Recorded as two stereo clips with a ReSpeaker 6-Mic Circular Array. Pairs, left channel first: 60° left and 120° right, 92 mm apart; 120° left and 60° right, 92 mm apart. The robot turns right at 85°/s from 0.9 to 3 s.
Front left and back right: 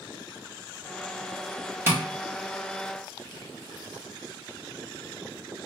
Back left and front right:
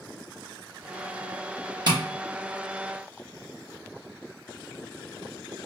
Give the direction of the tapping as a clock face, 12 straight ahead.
2 o'clock.